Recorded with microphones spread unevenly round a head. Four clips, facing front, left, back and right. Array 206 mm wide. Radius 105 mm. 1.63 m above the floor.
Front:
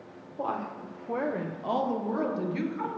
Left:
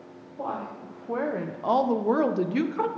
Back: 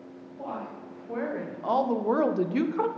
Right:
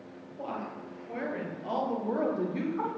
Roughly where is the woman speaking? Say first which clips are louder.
Left 4 dB, front 4 dB; ahead left.